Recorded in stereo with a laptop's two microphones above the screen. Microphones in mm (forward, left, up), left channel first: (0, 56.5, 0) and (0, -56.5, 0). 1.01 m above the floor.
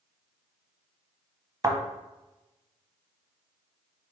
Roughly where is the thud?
Right.